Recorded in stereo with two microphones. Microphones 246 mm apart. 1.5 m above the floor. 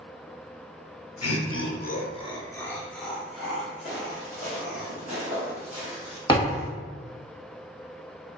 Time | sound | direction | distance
1.2 | laughter | 80° left | 0.5 m
3.9 | footsteps | 25° right (ahead or behind) | 1.8 m
6.3 | a thud | 15° left (ahead or behind) | 1.0 m